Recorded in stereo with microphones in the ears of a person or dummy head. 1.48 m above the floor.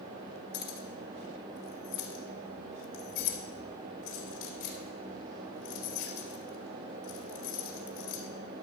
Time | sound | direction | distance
0.5 | keys jangling | 70° left (ahead or behind) | 2.5 m